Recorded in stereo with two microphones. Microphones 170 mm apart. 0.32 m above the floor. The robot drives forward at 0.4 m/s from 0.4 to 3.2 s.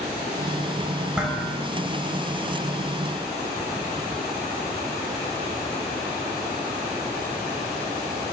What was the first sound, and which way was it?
Dishes clattering, 5° right (ahead or behind).